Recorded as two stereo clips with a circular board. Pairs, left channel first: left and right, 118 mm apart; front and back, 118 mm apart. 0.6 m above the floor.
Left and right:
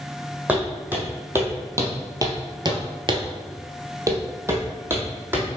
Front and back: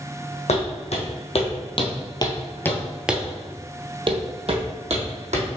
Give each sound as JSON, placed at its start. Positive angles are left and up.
{"t": 0.5, "sound": "footsteps", "azimuth_deg": -15, "distance_m": 1.8}